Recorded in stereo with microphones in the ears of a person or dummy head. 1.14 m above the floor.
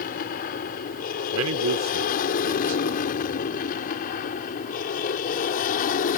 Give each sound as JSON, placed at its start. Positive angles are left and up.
{"t": 0.0, "sound": "an aircraft", "side_deg": 40}
{"t": 1.3, "sound": "a man speaking", "side_deg": -75}